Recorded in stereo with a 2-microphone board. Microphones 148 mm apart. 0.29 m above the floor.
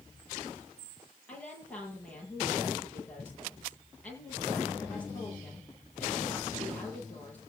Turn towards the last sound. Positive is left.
turn(degrees=10)  # may be behind; listen again after turning